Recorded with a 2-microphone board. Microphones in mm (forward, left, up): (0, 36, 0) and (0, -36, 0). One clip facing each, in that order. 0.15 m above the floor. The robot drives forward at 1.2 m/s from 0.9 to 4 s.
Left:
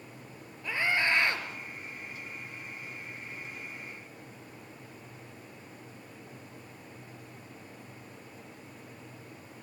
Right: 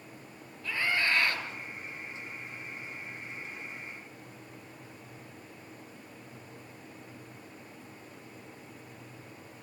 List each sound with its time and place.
0.6 s a scream: 20° left (ahead or behind), 3.5 m; by 1.5 s 25° left (ahead or behind), 2.5 m